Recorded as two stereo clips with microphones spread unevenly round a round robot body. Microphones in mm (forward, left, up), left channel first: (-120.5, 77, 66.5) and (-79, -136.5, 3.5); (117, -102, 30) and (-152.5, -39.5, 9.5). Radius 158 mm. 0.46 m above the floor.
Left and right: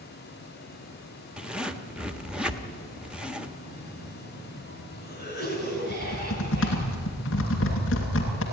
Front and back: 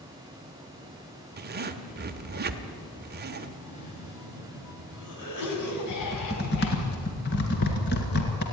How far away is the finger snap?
I don't hear a finger snap.